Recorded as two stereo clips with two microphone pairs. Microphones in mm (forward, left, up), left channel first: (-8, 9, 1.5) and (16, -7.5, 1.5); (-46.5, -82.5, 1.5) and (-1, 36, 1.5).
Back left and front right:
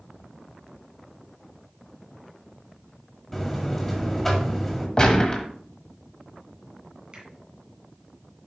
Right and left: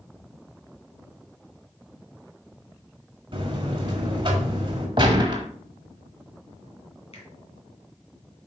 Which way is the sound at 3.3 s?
70° left.